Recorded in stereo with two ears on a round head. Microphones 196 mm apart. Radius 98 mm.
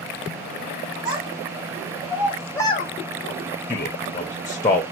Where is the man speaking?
15° left (ahead or behind), 0.7 m.